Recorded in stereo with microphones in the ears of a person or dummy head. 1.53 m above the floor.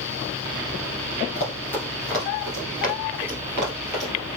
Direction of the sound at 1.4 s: 15° left (ahead or behind).